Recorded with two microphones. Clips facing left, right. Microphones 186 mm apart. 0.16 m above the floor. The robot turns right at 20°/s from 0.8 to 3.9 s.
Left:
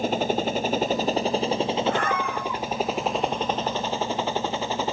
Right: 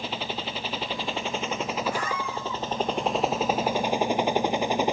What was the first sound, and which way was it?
A helicopter, 45° left (ahead or behind).